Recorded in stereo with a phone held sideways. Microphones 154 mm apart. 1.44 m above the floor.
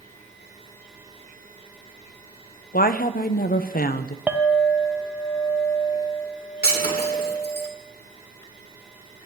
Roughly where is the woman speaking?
Left.